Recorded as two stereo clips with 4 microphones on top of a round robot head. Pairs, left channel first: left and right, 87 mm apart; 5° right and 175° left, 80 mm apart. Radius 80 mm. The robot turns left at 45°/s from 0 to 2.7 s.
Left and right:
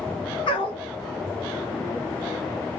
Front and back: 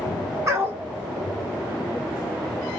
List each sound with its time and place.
0.5 s a dog barking: 120° left, 2 m; by 0.8 s 100° left, 2 m